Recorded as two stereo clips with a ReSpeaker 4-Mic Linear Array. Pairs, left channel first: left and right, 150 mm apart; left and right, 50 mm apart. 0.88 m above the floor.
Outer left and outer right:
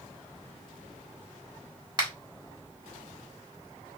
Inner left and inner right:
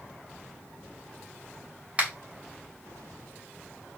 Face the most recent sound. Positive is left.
turn(degrees=-30)  # may be behind; listen again after turning